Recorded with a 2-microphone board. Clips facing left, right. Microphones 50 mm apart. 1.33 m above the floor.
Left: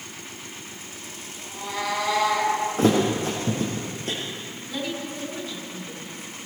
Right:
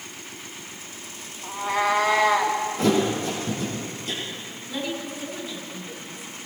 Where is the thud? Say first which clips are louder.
Left 1 dB; 45° left (ahead or behind), 3 m.